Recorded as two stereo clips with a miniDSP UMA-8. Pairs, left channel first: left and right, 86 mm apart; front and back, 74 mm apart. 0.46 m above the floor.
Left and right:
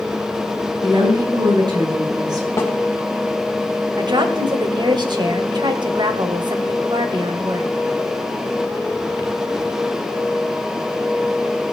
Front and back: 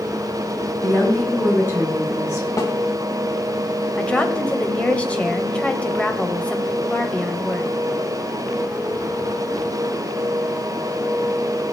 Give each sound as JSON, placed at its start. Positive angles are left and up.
{"t": 0.8, "sound": "a woman speaking", "azimuth_deg": -70, "distance_m": 7.5}
{"t": 2.6, "sound": "a snare drum", "azimuth_deg": 35, "distance_m": 2.5}
{"t": 4.0, "sound": "a woman speaking", "azimuth_deg": -75, "distance_m": 1.8}